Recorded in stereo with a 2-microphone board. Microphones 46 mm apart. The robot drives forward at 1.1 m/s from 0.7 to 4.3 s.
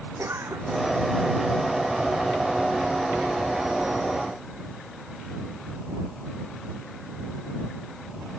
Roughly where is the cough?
Right.